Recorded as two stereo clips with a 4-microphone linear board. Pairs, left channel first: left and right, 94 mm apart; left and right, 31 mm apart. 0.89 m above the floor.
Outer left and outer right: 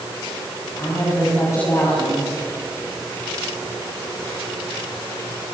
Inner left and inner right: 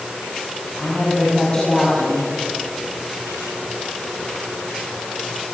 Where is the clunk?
No clunk in this recording.